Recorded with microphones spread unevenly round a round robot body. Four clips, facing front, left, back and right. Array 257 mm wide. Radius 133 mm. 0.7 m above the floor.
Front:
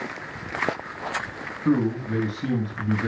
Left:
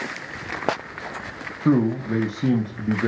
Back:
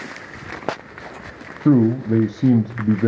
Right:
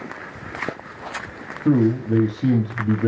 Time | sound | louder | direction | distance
1.6 | a man speaking | right 2 dB, back 7 dB | straight behind | 0.9 m